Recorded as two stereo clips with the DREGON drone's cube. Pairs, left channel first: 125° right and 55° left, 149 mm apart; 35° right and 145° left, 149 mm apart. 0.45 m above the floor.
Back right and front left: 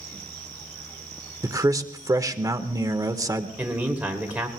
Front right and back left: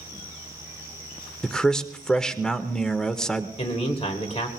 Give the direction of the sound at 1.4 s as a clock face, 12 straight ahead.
11 o'clock.